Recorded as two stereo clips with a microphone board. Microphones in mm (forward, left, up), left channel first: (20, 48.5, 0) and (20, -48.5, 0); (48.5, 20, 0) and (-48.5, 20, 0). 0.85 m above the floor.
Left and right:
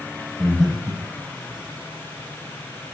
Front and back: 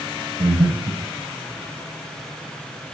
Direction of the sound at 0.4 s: 175° right.